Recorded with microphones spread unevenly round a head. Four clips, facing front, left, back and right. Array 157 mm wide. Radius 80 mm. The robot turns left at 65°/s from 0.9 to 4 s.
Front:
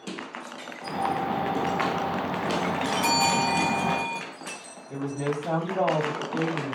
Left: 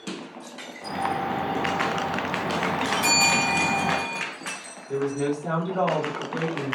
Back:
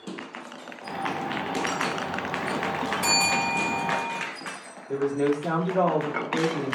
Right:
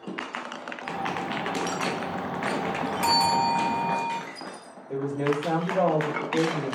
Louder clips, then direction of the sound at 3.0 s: Right 7 dB, front 4 dB; 140° right.